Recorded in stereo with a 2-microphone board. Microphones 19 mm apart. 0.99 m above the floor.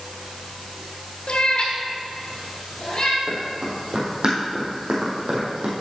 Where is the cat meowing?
55° left (ahead or behind), 0.9 m; by 3.2 s 35° left (ahead or behind), 2.5 m.